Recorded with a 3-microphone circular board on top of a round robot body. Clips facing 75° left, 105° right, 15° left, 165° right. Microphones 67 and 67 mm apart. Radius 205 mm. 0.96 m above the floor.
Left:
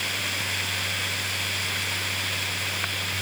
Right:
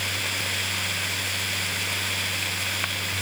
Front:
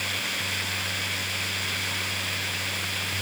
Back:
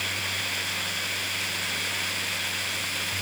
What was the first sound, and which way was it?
Only background noise.